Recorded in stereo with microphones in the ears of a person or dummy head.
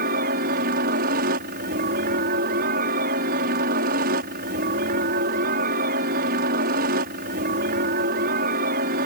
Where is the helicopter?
60° right (ahead or behind).